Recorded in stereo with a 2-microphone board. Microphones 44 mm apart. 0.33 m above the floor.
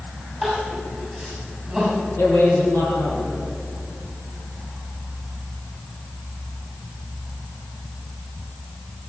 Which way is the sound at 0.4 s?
Centre (ahead or behind).